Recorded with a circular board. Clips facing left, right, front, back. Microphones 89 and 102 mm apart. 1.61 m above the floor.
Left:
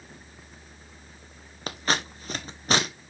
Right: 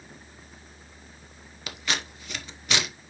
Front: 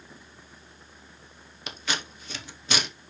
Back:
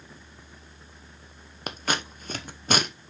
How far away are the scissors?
About 0.9 m.